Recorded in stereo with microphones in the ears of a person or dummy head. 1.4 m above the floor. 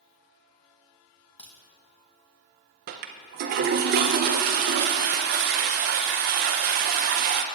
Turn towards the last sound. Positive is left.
turn(degrees=-40)  # may be behind; listen again after turning